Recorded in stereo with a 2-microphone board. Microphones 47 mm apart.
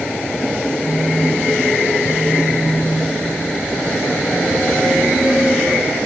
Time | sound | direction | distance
0.8 | a phone buzzing | 40° right (ahead or behind) | 2 m